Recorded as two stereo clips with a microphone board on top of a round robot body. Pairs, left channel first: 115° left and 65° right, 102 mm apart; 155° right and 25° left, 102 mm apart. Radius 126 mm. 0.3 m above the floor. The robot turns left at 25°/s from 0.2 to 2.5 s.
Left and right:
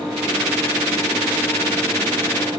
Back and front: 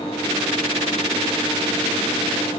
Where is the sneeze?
I don't hear a sneeze.